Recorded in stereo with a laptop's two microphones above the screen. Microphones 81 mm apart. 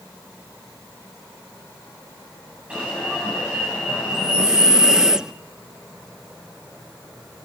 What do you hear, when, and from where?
2.7 s an alarm: 15° right (ahead or behind), 9 m
4.1 s breathing: 10° right (ahead or behind), 0.7 m